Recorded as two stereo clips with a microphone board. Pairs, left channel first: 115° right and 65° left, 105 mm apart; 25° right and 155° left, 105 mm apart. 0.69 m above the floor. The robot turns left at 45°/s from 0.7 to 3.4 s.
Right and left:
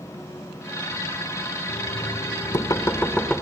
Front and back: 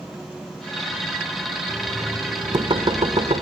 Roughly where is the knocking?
Behind right.